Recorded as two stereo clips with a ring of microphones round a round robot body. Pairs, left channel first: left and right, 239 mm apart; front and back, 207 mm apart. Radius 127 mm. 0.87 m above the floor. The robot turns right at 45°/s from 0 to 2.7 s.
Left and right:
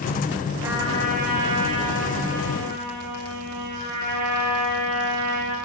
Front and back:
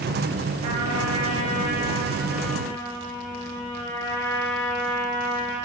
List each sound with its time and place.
0.6 s a trumpet: 170° right, 4 m; by 5.5 s 80° right, 4 m